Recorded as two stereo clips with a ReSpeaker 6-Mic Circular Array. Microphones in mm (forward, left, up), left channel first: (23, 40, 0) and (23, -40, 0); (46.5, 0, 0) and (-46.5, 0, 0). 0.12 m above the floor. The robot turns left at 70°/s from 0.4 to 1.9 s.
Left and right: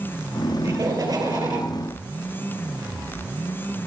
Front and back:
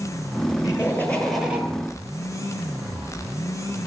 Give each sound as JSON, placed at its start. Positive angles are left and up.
{"t": 0.6, "sound": "laughter", "azimuth_deg": -40, "distance_m": 3.0}